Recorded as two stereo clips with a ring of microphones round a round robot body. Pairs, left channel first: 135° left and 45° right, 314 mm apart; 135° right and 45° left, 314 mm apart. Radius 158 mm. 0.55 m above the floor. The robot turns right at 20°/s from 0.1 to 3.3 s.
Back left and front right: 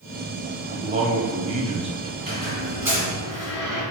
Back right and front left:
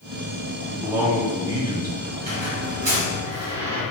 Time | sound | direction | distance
0.7 | a man speaking | 30° right | 0.7 m
2.2 | a squeak | 15° left | 1.8 m